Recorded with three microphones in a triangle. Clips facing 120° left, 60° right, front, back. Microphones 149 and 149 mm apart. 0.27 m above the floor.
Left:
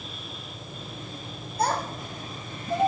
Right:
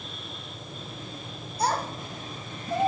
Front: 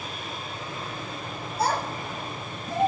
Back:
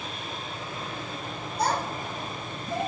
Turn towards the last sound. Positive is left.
turn(degrees=50)